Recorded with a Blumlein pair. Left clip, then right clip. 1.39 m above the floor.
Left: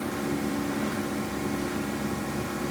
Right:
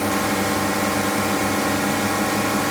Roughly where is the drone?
Ahead right.